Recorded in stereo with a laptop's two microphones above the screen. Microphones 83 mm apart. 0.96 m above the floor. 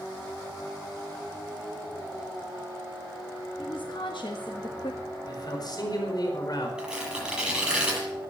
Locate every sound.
3.6 s a woman speaking: 65° left (ahead or behind), 1.4 m
5.2 s a man speaking: 55° left (ahead or behind), 4.5 m
6.8 s tearing paper: 10° right (ahead or behind), 8.5 m